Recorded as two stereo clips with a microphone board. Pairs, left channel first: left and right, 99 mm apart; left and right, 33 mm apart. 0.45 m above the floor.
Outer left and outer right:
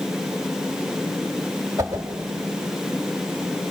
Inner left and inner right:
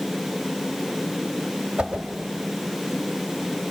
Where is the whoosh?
30° right (ahead or behind), 1.8 m.